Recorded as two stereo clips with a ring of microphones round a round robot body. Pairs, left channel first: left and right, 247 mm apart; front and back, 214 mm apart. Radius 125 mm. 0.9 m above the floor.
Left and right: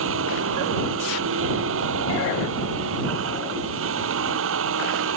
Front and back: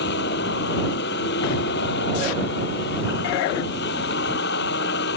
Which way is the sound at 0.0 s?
50° right.